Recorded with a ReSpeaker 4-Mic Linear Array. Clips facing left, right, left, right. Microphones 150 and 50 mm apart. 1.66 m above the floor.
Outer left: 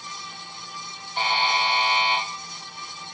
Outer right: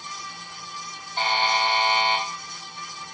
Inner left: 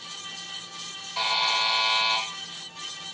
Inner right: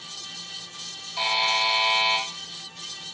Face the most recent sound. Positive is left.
turn(degrees=75)  # may be behind; listen again after turning